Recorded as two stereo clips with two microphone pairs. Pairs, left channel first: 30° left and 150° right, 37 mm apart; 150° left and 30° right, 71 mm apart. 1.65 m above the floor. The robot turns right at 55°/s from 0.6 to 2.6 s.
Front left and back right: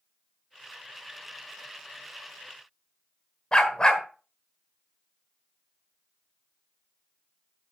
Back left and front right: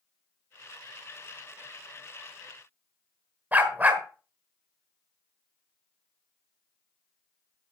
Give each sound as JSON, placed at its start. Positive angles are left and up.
{"t": 3.5, "sound": "a dog barking", "azimuth_deg": 10, "distance_m": 1.5}